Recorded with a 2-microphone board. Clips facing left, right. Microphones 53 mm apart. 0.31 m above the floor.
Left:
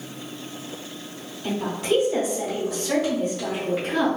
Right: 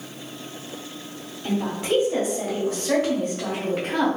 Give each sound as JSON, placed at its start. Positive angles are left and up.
{"t": 1.4, "sound": "a woman speaking", "side_deg": -20, "distance_m": 1.6}